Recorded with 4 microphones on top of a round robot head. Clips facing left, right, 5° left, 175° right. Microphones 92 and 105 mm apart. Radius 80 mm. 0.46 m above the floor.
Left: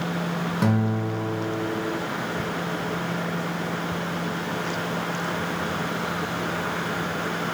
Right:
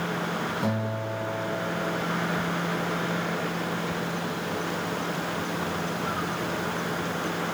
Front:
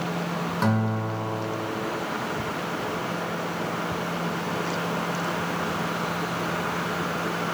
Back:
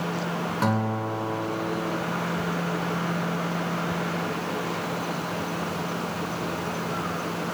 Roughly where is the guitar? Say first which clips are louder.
Left 5 dB, even; left.